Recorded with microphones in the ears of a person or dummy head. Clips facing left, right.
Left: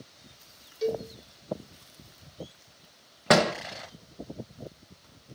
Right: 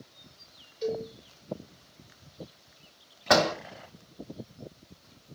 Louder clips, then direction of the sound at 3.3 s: Left 1 dB; 35° left (ahead or behind).